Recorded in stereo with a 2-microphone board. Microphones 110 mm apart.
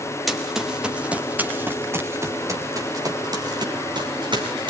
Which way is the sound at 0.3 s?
Centre (ahead or behind).